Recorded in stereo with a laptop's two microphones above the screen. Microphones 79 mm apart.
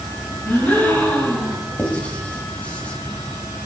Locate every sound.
0.5 s a gasp: 20° left (ahead or behind), 6.5 m
1.8 s writing: 20° left (ahead or behind), 2 m